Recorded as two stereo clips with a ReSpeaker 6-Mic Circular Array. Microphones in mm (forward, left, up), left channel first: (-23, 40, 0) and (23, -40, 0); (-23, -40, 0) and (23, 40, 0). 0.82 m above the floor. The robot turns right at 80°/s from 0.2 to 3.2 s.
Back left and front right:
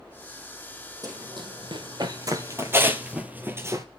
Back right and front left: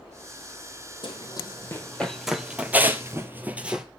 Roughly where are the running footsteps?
Right.